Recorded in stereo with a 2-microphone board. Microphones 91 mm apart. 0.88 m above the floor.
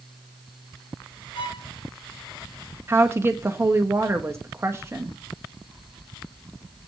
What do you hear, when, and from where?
1.4 s a violin: 65° left (ahead or behind), 3.5 m
2.9 s a woman speaking: 30° right (ahead or behind), 1.3 m